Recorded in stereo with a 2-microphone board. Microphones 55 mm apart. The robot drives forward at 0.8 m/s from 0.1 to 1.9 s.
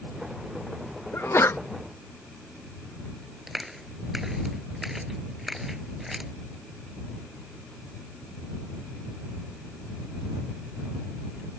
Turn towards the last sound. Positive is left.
turn(degrees=-5)  # may be behind; listen again after turning